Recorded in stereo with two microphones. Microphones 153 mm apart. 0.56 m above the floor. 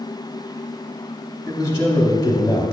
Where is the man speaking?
20° left (ahead or behind), 0.7 m.